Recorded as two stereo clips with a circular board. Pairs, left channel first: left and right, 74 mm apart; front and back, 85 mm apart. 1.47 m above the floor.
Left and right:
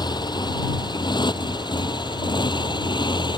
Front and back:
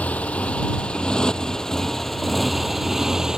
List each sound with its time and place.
0.0 s a motorcycle: 70° left; by 3.4 s 95° left